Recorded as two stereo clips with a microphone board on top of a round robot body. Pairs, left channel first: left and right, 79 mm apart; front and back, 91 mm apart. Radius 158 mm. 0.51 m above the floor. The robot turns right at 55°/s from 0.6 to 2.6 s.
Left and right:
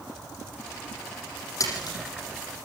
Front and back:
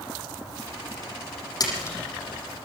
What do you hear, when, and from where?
1.6 s a splash: 45° left, 7.5 m; by 2.0 s 65° left, 7.5 m